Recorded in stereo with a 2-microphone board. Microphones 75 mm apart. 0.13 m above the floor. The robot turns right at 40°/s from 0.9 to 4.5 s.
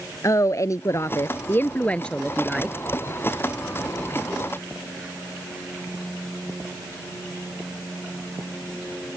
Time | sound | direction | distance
0.2 | a woman speaking | 120° left | ?